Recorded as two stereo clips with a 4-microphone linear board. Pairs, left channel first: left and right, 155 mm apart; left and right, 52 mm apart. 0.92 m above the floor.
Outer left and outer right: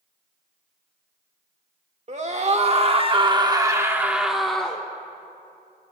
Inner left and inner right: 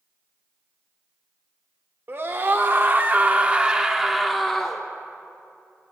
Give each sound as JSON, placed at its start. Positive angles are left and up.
{"t": 2.1, "sound": "a scream", "side_deg": -45, "distance_m": 1.3}